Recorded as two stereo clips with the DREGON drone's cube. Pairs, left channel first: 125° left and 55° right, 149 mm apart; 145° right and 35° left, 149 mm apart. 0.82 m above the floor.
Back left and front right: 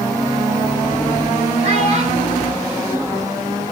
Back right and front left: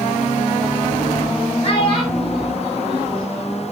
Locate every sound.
1.6 s a child speaking: 95° right, 2.5 m; by 3.6 s 90° right, 3.5 m